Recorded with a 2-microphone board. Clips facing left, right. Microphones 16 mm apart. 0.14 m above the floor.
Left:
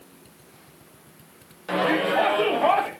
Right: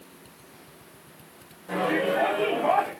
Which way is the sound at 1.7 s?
60° left (ahead or behind).